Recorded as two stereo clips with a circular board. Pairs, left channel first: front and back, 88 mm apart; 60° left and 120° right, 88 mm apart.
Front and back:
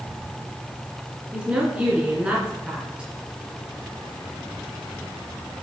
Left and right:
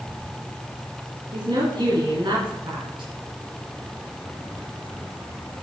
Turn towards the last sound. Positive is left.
turn(degrees=-105)